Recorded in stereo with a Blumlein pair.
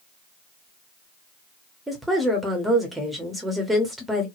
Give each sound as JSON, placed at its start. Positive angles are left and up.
{"t": 1.9, "sound": "a woman speaking", "azimuth_deg": -5, "distance_m": 1.0}